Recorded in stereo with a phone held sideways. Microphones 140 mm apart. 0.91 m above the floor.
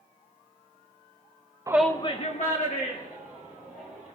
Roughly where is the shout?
Right.